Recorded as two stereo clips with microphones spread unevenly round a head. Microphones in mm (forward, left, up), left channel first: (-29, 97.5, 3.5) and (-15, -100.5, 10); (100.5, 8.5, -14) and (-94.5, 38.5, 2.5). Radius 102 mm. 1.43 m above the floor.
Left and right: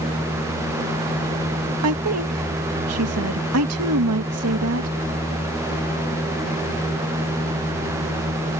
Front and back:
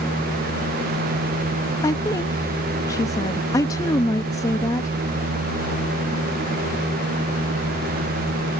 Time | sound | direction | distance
1.8 | a woman speaking | 85° right | ?